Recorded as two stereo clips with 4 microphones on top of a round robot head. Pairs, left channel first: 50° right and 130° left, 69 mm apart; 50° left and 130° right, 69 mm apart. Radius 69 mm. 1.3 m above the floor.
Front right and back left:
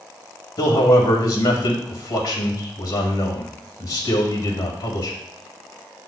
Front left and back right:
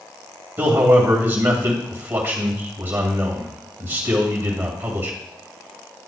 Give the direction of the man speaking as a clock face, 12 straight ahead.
2 o'clock.